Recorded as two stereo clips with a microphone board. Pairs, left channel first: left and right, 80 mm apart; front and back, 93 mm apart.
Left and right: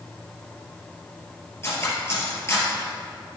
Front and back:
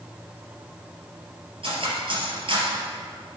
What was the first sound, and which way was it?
Cutlery clinking, 150° left.